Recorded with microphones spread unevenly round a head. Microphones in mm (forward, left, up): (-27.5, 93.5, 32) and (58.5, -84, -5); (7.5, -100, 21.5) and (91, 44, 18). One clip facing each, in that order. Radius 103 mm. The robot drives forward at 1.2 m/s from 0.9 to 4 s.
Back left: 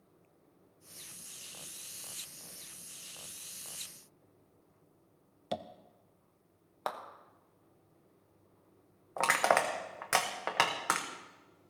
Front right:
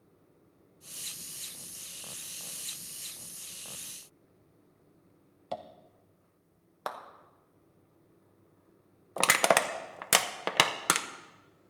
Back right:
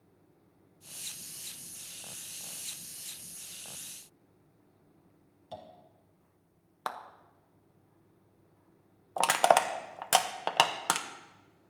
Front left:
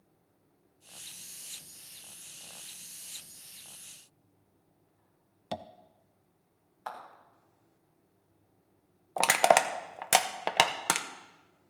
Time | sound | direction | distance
5.5 | tapping | 50° left | 0.6 m
6.9 | a clap | 150° right | 0.9 m
9.2 | crushing | 20° right | 0.9 m